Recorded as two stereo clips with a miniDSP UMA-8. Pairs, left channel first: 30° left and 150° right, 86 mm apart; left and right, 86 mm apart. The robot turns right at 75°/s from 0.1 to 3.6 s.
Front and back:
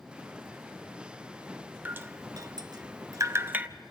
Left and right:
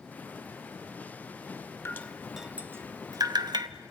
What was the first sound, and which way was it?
Dripping, 145° left.